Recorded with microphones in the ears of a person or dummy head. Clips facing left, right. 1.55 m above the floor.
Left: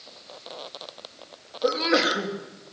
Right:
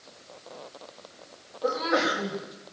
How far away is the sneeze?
About 3.5 m.